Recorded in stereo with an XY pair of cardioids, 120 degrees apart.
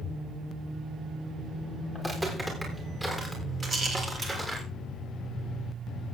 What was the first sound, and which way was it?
Footsteps, 15° right.